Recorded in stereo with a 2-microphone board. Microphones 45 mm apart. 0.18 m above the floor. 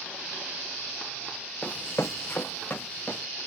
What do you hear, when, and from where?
1.6 s running footsteps: 20° left (ahead or behind), 0.7 m; by 3.2 s 35° left (ahead or behind), 1.8 m